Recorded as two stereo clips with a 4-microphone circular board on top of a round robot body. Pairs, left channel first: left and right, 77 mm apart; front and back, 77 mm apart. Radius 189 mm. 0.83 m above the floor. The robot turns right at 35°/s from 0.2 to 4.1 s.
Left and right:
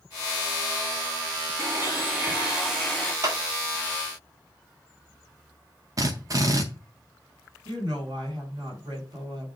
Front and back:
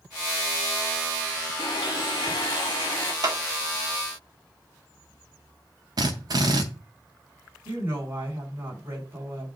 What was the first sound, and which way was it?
A blender, 40° right.